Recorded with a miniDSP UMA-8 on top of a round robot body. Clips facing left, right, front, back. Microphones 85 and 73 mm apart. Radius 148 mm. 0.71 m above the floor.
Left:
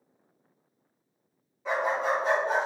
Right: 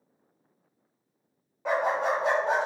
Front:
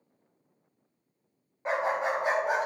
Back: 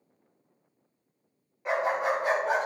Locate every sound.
1.6 s a dog barking: 55° right, 1.8 m; by 2.7 s 80° right, 1.6 m